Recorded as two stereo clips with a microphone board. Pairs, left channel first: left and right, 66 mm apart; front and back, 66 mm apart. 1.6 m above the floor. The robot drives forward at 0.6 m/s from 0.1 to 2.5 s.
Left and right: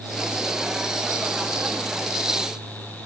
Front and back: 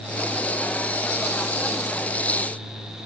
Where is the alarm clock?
I don't hear an alarm clock.